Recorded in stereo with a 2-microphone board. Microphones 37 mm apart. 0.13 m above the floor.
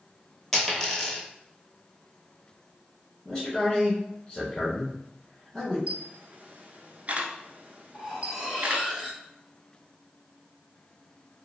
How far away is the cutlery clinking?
About 1.5 m.